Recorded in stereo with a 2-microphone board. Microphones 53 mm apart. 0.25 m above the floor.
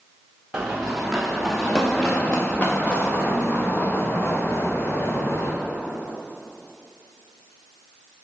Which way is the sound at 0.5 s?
10° right (ahead or behind).